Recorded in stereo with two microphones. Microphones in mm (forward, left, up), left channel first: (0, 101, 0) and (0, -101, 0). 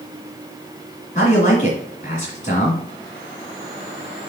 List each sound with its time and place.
1.1 s a man speaking: 35° left (ahead or behind), 2 m